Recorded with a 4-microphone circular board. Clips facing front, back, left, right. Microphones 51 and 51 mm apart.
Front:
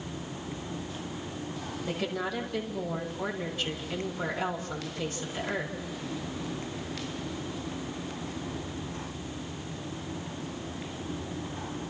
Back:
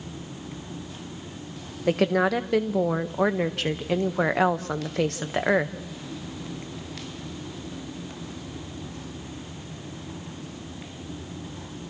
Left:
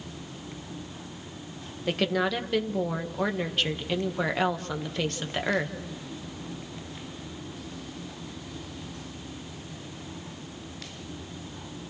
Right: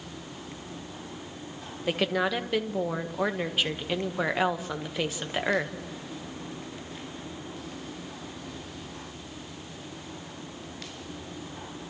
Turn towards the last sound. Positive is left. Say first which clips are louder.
# back 12 dB, even
turn(degrees=-175)